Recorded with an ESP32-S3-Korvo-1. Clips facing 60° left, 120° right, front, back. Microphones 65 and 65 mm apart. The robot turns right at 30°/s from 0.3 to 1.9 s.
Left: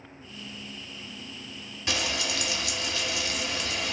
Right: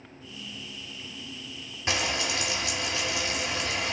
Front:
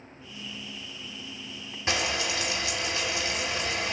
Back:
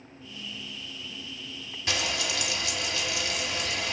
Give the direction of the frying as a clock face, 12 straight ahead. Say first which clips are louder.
Right 2 dB, front 2 dB; 2 o'clock.